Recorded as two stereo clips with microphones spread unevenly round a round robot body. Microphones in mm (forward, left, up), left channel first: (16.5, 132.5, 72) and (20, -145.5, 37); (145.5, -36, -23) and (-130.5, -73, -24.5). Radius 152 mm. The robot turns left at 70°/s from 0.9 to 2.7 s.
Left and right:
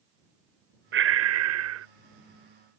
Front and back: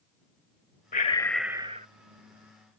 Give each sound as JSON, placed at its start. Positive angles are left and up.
{"t": 0.9, "sound": "breathing", "azimuth_deg": -50}